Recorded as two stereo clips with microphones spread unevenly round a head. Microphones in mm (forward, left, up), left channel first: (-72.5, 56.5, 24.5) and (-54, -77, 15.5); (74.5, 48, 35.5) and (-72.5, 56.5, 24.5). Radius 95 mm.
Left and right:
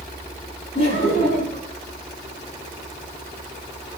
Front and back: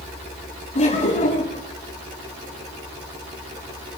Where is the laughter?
40° left, 8 m.